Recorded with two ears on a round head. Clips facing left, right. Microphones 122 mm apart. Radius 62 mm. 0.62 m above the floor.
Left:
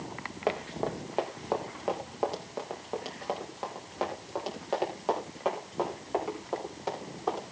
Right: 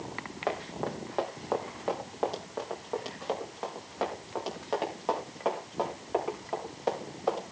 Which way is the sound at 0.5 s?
15° left (ahead or behind).